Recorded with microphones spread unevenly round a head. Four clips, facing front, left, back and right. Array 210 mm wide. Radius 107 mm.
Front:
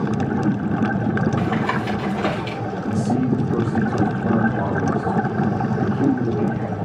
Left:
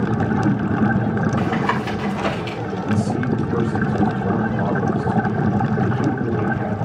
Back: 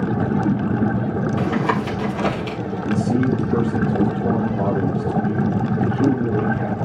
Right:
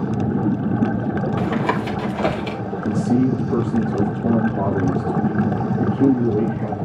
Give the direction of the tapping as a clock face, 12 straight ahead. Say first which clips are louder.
Even, back 1 dB; 4 o'clock.